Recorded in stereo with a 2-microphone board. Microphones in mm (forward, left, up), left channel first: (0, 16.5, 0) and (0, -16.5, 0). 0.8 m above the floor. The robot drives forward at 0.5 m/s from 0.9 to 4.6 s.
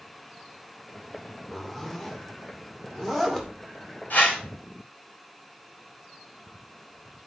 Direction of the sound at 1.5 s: 10° left (ahead or behind).